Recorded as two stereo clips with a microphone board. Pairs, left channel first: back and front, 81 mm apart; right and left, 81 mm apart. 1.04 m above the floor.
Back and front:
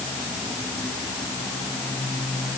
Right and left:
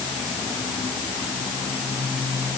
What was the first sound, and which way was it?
Only background noise.